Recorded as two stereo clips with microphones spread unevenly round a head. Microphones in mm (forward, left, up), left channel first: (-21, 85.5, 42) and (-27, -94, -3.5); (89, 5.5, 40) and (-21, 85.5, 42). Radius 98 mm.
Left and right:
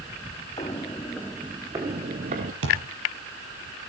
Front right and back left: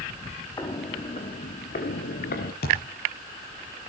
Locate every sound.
0.6 s footsteps: 25° left, 2.5 m; by 2.5 s 35° right, 2.5 m
2.6 s a thud: 65° right, 7 m